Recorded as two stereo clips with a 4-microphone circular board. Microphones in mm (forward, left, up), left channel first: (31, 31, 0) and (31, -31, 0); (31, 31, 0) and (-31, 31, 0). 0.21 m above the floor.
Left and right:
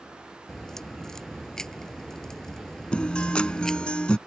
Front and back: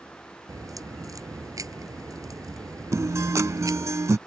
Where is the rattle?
I don't hear a rattle.